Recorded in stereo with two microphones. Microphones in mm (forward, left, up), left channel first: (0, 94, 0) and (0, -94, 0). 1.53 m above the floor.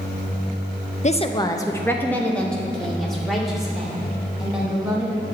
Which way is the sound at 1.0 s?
40° left (ahead or behind).